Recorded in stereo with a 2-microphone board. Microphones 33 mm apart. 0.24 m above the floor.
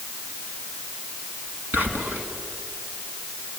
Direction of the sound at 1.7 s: 60° right (ahead or behind).